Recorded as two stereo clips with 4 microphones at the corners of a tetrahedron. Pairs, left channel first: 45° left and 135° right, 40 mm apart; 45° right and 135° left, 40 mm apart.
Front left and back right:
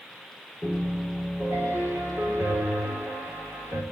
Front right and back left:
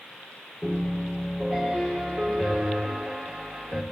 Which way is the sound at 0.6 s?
145° right.